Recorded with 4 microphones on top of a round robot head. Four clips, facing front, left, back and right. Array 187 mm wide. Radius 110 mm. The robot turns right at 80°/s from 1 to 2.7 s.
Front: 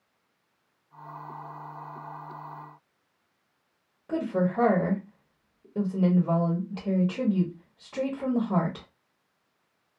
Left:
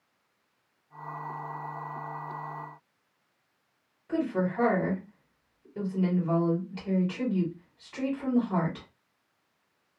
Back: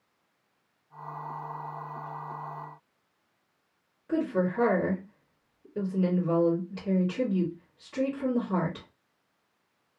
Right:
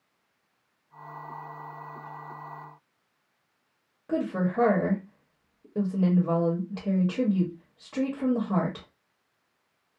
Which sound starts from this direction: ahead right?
A woman speaking, at 4.1 s.